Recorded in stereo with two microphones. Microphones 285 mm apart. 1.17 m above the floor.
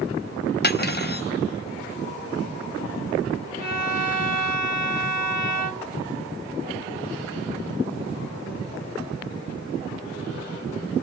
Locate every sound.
0.6 s cutlery clinking: 35° left (ahead or behind), 0.7 m
3.6 s a violin: 60° right (ahead or behind), 1.6 m